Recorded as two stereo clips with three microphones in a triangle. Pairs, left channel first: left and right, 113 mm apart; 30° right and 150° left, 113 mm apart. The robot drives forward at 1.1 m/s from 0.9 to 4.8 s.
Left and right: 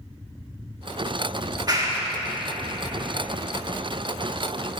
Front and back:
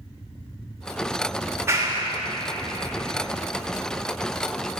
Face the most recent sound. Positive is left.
turn(degrees=-175)